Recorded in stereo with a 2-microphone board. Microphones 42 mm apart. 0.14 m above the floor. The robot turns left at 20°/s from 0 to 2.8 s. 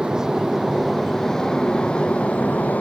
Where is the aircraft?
165° right; by 2.8 s 140° left.